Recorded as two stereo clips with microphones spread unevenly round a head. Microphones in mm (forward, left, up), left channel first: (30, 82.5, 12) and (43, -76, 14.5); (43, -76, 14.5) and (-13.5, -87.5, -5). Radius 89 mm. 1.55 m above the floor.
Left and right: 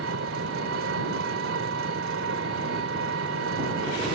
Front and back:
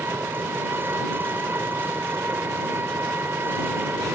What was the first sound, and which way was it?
An engine running, 110° right.